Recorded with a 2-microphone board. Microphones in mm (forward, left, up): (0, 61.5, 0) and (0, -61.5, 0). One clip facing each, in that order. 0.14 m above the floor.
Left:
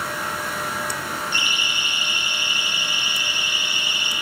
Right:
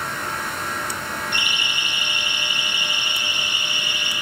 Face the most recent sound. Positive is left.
turn(degrees=-50)  # may be behind; listen again after turning